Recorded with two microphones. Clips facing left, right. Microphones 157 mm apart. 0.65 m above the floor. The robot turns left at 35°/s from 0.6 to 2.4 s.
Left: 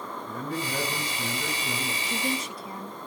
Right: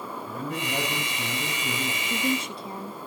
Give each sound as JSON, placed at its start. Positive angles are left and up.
{"t": 0.3, "sound": "a man speaking", "azimuth_deg": -35, "distance_m": 5.0}
{"t": 2.0, "sound": "a woman speaking", "side_deg": -15, "distance_m": 1.2}